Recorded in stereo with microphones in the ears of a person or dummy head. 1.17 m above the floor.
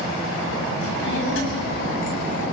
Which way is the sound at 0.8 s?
80° left.